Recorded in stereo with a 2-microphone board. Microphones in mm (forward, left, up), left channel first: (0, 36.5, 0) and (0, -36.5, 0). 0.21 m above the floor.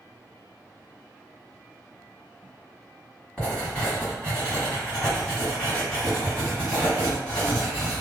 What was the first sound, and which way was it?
Writing, 15° left (ahead or behind).